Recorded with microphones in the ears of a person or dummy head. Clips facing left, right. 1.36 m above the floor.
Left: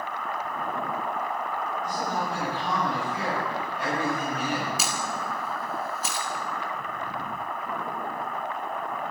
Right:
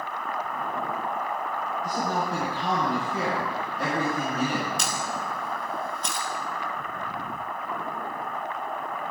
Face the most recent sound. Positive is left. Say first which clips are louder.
# even
turn(degrees=5)  # may be behind; listen again after turning